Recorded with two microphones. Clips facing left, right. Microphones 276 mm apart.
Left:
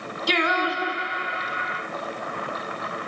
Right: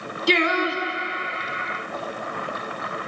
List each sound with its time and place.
0.3 s singing: 35° right (ahead or behind), 0.9 m